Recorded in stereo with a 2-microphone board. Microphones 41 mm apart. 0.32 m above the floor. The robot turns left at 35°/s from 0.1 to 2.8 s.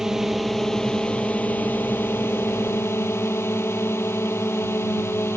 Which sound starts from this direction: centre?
A drone, at 0.0 s.